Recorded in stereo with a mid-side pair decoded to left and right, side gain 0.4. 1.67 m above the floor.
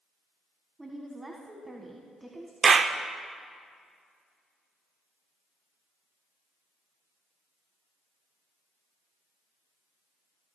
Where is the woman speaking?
15° right, 1.7 m.